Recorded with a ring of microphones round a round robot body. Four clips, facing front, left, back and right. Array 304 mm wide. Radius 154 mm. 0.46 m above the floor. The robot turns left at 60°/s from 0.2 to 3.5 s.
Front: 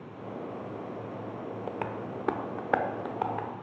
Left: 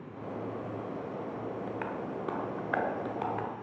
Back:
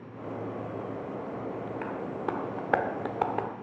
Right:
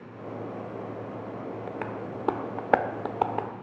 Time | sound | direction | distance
1.7 | tapping | 30° right | 0.9 m